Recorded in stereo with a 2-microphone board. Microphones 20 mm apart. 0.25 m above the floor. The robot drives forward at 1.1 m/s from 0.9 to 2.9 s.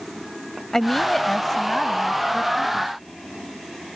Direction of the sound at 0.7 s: 20° left (ahead or behind).